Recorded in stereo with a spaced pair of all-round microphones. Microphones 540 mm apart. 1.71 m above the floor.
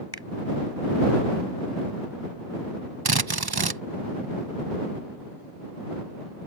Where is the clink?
I don't hear a clink.